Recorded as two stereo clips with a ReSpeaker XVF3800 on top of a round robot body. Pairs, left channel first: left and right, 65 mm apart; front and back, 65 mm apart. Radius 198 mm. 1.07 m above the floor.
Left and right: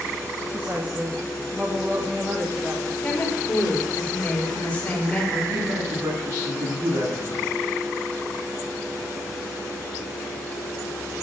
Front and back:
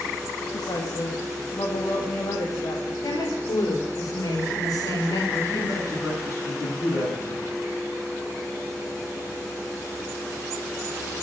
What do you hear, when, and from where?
0.5 s a woman speaking: 25° right, 2.5 m
3.0 s a woman speaking: 20° left, 5 m
5.3 s a man speaking: 45° right, 9.5 m